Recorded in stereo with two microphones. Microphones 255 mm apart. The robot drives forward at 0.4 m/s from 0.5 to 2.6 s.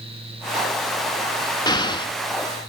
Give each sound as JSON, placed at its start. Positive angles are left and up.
{"t": 1.7, "sound": "an explosion", "side_deg": 15, "distance_m": 0.5}